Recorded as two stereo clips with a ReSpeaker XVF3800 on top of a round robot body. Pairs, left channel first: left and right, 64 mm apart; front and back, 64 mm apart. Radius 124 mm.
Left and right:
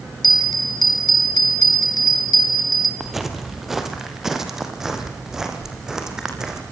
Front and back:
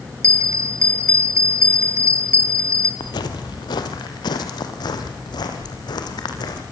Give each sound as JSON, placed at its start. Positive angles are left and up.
{"t": 0.2, "sound": "a bell", "azimuth_deg": 120, "distance_m": 0.8}
{"t": 3.0, "sound": "footsteps", "azimuth_deg": -5, "distance_m": 2.0}